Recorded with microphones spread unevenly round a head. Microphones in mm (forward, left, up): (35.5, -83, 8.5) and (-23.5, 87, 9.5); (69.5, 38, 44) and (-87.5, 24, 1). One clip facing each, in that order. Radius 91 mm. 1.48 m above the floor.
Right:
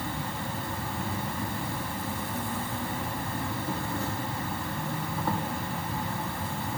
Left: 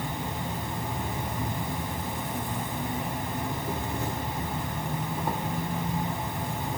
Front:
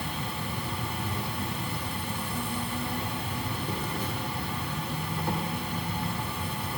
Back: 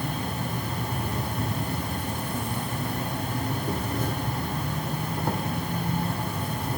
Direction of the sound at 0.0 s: Straight behind.